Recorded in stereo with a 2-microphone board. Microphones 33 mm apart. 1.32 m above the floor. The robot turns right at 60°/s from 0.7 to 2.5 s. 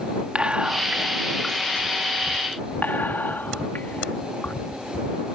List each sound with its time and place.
0.3 s whispering: 35° right (ahead or behind); by 4.5 s 75° left (ahead or behind)